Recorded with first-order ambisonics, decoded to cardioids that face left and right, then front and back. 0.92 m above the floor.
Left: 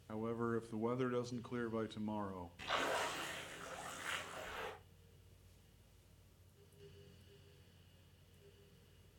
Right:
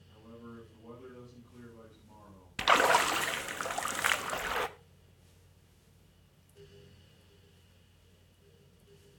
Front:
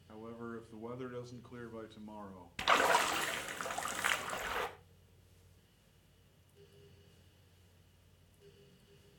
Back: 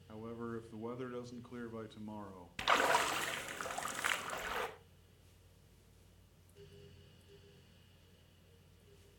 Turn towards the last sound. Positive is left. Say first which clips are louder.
# right 14 dB, front 2 dB
turn(degrees=-85)